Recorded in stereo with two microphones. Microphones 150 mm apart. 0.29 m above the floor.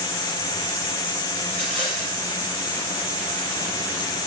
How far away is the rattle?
About 3.5 m.